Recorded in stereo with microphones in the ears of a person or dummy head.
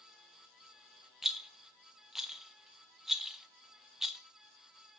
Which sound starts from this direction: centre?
A rattle, at 1.2 s.